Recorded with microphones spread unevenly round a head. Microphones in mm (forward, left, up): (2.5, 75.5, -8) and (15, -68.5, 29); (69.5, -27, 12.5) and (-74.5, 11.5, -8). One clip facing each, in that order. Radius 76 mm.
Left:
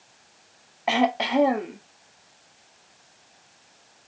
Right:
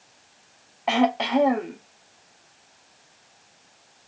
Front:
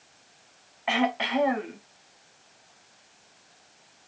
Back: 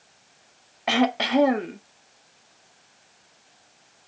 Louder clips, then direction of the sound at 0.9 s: Right 1 dB, back 4 dB; 165° right.